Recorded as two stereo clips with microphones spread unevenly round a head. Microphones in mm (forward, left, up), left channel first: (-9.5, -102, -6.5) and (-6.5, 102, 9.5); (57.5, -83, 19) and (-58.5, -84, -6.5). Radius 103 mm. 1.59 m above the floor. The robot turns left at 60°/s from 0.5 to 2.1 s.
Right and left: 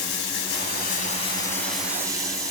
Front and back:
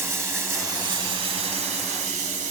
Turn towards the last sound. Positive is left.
turn(degrees=155)